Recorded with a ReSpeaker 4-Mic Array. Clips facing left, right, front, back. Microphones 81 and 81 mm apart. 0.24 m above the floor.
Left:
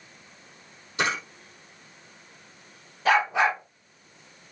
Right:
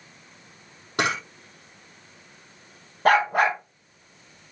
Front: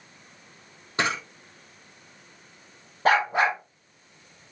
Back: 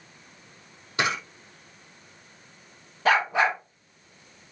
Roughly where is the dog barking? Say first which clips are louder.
Right 3 dB, front 1 dB; ahead right.